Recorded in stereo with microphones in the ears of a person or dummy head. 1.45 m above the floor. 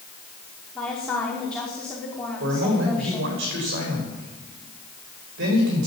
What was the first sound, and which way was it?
A woman speaking, 5° left (ahead or behind).